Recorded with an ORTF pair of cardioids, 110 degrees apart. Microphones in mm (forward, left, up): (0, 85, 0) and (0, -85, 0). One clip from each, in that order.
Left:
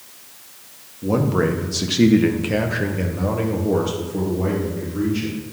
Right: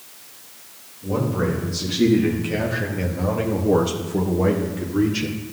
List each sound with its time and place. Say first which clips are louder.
1.0 s a man speaking: left 4 dB; 65° left, 1.8 m; by 5.4 s 40° right, 2.0 m